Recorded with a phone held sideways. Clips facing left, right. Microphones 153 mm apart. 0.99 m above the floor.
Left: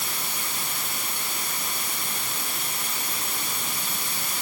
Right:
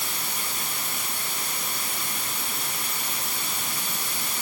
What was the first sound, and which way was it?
Only background noise.